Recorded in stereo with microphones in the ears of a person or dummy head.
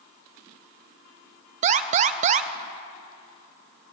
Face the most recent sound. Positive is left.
turn(degrees=-40)  # may be behind; listen again after turning